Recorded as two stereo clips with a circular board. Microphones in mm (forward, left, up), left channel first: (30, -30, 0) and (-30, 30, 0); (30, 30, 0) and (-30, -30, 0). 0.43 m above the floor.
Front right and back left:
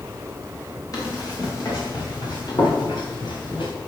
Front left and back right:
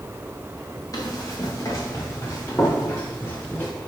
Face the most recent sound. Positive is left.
turn(degrees=-25)